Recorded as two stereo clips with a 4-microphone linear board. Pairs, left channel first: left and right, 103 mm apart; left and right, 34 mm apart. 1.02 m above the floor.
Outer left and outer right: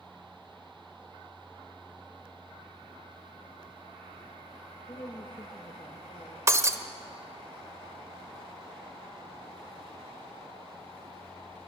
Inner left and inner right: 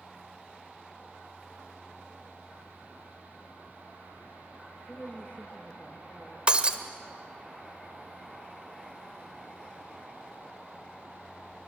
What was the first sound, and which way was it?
A woman speaking, 35° left (ahead or behind).